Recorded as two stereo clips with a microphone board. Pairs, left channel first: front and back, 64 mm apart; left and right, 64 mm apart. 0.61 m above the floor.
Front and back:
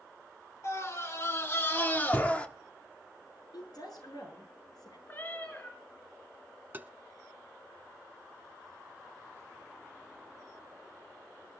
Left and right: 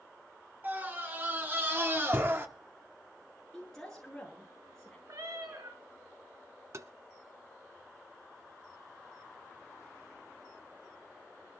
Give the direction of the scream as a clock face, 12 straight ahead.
1 o'clock.